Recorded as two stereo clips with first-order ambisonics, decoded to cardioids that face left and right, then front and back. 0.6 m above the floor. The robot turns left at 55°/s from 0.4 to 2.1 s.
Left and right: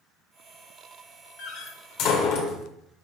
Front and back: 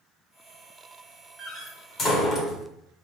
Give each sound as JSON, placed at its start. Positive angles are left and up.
{"t": 1.4, "sound": "a door slam", "azimuth_deg": 100, "distance_m": 1.5}